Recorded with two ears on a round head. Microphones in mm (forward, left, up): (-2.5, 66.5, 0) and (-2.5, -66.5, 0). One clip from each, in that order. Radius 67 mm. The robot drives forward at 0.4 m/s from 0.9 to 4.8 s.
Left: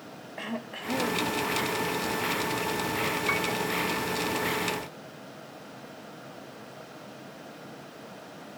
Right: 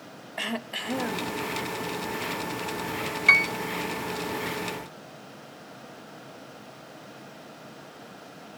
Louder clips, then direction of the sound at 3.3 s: Right 13 dB; 50° right (ahead or behind).